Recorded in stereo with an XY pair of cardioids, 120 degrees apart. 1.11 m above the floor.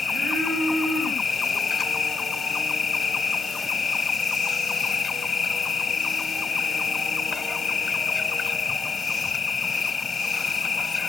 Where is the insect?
35° left.